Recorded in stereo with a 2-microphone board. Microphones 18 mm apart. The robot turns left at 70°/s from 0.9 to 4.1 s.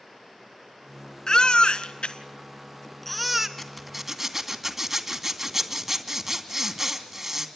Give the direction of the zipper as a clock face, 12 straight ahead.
11 o'clock.